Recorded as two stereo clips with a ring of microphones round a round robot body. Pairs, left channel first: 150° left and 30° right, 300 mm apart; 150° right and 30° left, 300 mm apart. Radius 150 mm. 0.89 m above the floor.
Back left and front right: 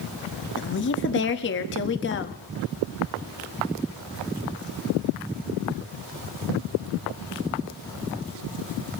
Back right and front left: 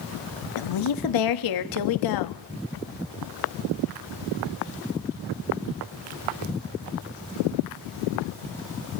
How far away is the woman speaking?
About 1.5 m.